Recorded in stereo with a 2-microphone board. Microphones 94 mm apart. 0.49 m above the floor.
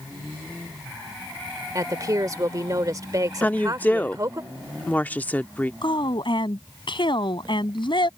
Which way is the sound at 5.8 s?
60° left (ahead or behind).